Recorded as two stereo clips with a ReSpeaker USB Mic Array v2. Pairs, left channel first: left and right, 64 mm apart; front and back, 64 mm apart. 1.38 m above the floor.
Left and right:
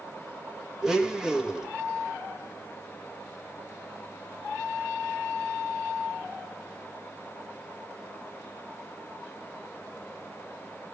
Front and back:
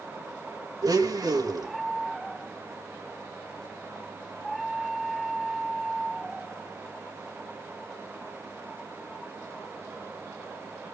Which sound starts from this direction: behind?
A blender, at 0.8 s.